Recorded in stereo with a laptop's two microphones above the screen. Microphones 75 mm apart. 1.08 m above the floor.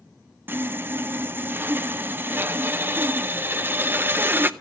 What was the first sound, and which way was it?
Sawing, 30° right (ahead or behind).